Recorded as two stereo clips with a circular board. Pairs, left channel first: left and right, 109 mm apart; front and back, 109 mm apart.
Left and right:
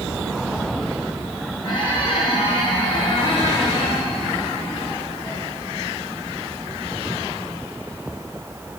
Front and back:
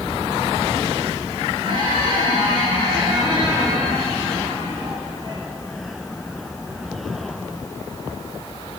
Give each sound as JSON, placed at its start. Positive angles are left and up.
{"t": 1.6, "sound": "a squeak", "azimuth_deg": 135, "distance_m": 3.0}